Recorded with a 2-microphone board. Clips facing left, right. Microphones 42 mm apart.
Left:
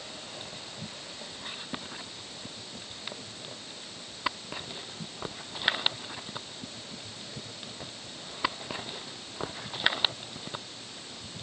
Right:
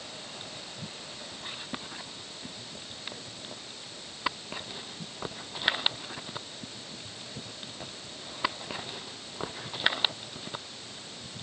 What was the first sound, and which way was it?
Only background noise.